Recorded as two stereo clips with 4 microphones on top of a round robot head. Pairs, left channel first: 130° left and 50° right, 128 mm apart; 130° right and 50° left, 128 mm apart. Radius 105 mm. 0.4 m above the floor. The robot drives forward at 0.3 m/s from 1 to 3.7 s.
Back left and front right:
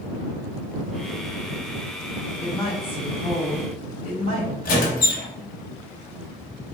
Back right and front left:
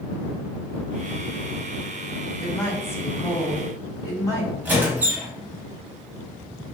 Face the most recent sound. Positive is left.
turn(degrees=130)